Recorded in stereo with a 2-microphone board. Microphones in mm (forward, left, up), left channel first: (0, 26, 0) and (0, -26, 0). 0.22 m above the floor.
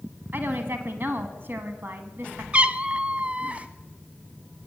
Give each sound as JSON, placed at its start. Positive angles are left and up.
{"t": 0.3, "sound": "a woman speaking", "side_deg": -45, "distance_m": 1.6}
{"t": 2.5, "sound": "a cat meowing", "side_deg": -30, "distance_m": 0.7}